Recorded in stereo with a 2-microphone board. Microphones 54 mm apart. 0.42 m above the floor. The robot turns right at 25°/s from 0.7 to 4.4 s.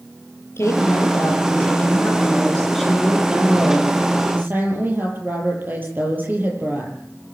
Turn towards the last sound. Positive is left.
turn(degrees=-140)